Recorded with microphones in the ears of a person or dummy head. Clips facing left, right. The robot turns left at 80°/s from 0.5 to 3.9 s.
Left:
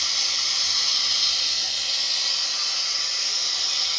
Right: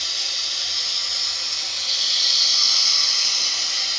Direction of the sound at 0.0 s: 115° left.